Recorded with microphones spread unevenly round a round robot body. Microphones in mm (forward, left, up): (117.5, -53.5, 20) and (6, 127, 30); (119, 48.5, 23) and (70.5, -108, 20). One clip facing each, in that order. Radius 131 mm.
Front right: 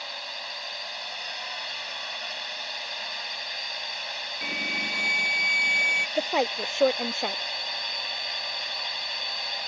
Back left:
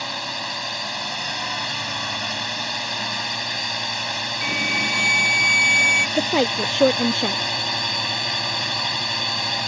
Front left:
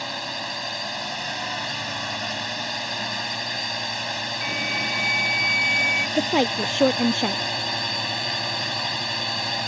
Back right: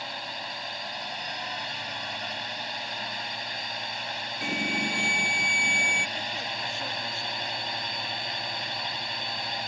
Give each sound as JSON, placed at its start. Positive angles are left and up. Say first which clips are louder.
{"t": 0.0, "sound": "a drone", "louder": "back left 10 dB, front left 6 dB", "azimuth_deg": 120}
{"t": 4.4, "sound": "an alarm", "louder": "back left 7 dB, back right 3 dB", "azimuth_deg": 180}
{"t": 6.2, "sound": "a woman speaking", "louder": "back left 6 dB, front left 15 dB", "azimuth_deg": 80}